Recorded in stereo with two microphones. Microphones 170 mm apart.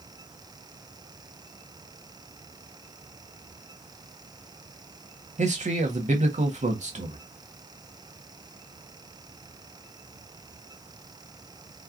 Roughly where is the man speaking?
Right.